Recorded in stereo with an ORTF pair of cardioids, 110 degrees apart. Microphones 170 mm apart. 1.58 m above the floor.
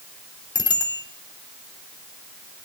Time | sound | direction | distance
0.6 | a bicycle bell | 30° left | 3.5 m